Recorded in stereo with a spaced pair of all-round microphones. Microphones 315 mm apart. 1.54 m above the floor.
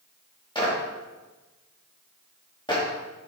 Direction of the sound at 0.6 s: 15° left (ahead or behind).